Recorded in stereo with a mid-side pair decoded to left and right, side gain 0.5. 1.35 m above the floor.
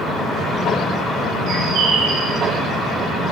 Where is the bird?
70° right, 5.5 m.